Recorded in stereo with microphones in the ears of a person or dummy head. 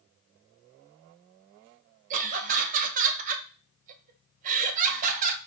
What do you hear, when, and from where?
2.1 s laughter: 45° right (ahead or behind), 0.9 m